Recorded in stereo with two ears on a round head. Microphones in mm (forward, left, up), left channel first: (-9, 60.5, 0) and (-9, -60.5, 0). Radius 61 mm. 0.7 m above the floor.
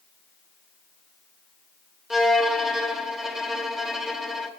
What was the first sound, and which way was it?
A violin, 5° right (ahead or behind).